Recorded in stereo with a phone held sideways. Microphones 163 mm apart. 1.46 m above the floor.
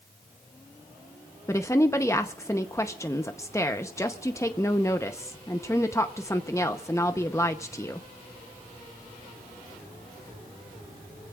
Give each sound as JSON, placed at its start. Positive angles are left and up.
{"t": 1.5, "sound": "a woman speaking", "side_deg": 20, "distance_m": 0.8}